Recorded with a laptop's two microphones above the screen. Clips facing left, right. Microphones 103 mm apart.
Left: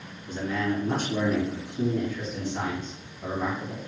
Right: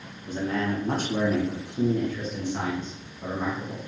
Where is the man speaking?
40° right (ahead or behind), 1.3 m; by 3.8 s 30° right (ahead or behind), 1.9 m.